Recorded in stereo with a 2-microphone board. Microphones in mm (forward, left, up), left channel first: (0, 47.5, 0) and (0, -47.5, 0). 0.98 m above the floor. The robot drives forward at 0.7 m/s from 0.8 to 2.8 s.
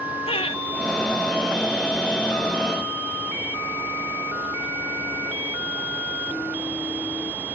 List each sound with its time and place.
0.3 s laughter: 80° left, 1.2 m